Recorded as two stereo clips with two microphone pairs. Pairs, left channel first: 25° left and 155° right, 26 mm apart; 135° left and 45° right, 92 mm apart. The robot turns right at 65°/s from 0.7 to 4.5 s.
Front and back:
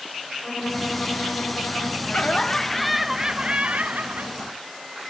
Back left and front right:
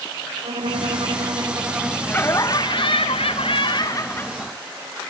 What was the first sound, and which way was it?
A violin, 45° right.